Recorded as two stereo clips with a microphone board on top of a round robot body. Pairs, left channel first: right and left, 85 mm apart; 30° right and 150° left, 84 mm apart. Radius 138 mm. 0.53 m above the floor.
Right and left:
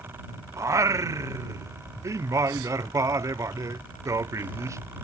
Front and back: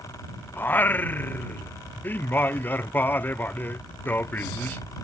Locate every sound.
0.6 s singing: 35° left